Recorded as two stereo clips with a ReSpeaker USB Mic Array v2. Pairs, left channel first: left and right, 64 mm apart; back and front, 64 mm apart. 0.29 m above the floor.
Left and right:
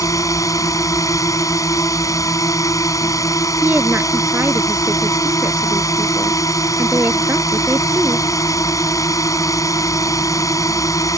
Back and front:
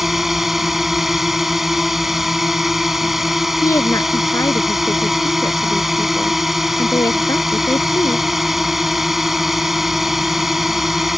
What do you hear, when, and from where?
0.0 s a drone: 85° left
3.6 s a woman speaking: 150° right